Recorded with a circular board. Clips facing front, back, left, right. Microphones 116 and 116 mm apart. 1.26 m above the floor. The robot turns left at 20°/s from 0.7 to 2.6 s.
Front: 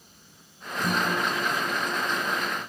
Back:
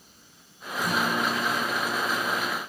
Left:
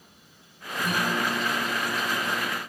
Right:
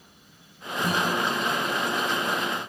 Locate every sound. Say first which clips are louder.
0.8 s a guitar: even, right 2 dB; 30° right, 6.5 m; by 2.6 s 70° right, 6.5 m